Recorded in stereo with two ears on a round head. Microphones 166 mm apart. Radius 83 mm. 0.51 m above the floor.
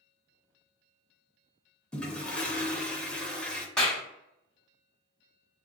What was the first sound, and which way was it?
A toilet flushing, 5° left (ahead or behind).